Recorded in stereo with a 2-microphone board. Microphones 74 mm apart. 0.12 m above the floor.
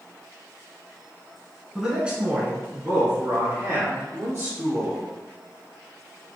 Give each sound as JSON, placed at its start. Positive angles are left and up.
{"t": 1.8, "sound": "a man speaking", "side_deg": -5, "distance_m": 1.2}